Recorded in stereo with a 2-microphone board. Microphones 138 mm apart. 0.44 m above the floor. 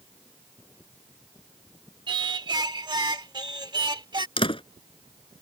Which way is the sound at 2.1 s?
35° right (ahead or behind).